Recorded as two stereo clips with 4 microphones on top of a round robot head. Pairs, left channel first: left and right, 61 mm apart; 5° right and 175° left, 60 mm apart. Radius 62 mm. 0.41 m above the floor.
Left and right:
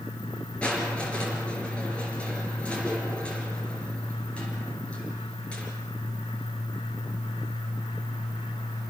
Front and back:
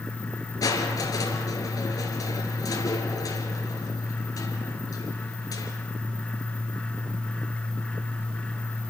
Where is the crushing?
15° left, 4.5 m.